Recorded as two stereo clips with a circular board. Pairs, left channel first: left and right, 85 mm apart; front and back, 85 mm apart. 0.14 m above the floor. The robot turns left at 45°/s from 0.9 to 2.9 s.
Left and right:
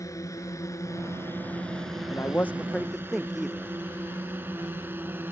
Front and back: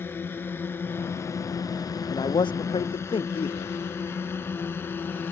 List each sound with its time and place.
0.0 s a drone: 55° left; by 5.3 s 45° right
2.1 s a man speaking: 35° left; by 3.8 s straight ahead